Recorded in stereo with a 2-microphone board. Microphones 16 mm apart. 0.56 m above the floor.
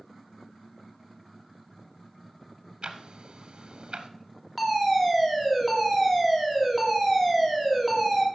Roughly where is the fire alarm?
Centre.